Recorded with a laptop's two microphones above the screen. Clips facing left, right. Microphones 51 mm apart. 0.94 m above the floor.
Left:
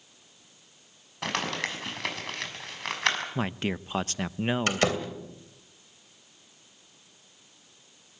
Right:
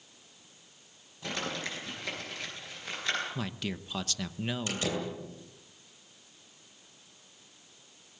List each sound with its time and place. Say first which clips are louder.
1.2 s crumpling: left 5 dB; 70° left (ahead or behind), 6.5 m
3.4 s a man speaking: left 6 dB; 30° left (ahead or behind), 0.7 m
4.7 s a door slam: left 7 dB; 65° left (ahead or behind), 2.5 m